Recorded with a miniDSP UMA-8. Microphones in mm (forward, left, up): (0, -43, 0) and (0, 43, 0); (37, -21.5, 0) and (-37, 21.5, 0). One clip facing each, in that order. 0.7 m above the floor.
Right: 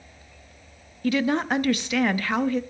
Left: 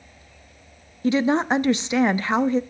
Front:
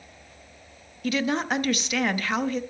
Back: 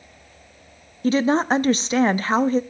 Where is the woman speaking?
135° left, 0.6 m.